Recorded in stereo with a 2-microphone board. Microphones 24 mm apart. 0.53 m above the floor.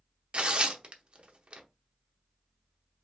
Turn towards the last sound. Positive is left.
turn(degrees=-50)  # may be behind; listen again after turning